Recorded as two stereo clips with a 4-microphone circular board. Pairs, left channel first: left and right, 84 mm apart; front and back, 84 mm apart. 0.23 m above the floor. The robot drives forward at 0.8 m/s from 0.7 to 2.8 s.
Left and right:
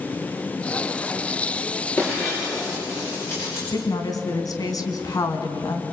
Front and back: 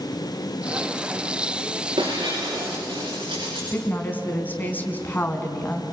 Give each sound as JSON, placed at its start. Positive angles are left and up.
{"t": 2.0, "sound": "breaking glass", "azimuth_deg": 150, "distance_m": 9.5}
{"t": 3.7, "sound": "a woman speaking", "azimuth_deg": 60, "distance_m": 2.5}